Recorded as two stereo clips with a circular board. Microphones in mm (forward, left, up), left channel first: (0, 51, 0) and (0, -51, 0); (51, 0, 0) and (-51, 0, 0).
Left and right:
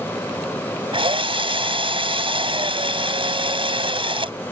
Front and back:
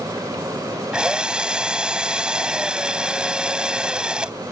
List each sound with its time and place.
0.9 s a drill: 100° right